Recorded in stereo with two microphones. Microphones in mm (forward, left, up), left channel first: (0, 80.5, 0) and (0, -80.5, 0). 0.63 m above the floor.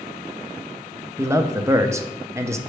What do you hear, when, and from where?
1.2 s a man speaking: 20° right (ahead or behind), 0.5 m